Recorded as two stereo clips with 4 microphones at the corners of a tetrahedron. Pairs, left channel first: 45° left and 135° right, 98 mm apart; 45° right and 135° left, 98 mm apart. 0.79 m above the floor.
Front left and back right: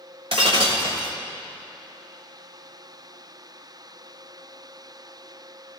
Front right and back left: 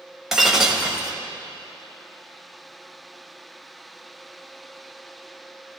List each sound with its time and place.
0.3 s breaking glass: 140° right, 1.4 m